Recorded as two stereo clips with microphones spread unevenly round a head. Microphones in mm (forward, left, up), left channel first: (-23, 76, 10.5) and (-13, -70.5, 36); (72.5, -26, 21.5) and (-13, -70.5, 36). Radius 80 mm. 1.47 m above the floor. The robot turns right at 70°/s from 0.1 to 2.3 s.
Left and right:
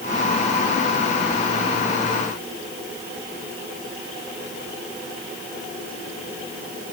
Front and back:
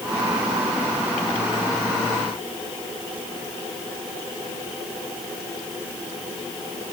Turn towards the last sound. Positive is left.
No sound to turn to.